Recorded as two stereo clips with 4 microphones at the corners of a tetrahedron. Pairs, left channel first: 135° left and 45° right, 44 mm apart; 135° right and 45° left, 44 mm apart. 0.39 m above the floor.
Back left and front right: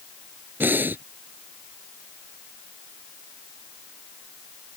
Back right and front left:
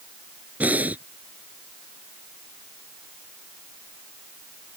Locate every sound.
0.6 s breathing: 5° right